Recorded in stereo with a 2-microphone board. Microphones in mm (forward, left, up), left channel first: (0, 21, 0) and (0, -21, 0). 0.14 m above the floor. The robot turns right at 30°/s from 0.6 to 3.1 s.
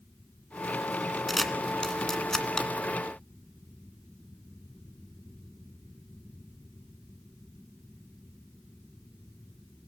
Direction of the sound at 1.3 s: Centre (ahead or behind).